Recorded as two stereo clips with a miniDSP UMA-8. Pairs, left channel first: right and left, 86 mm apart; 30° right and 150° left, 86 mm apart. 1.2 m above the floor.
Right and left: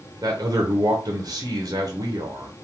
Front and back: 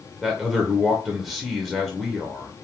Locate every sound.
0.2 s a man speaking: 65° left, 0.7 m